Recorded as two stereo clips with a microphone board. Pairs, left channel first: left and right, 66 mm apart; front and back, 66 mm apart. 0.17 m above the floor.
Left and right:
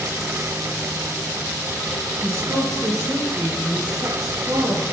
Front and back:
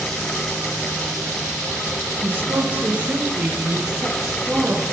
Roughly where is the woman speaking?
Behind right.